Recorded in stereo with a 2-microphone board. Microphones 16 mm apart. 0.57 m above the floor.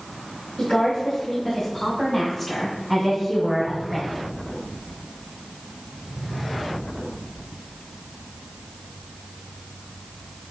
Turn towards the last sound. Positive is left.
turn(degrees=-15)  # may be behind; listen again after turning